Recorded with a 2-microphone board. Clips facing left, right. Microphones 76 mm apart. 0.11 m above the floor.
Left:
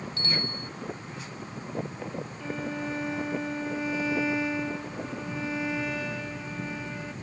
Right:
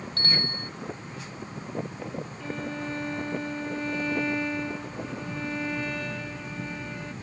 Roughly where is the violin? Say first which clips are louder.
Left 1 dB; centre.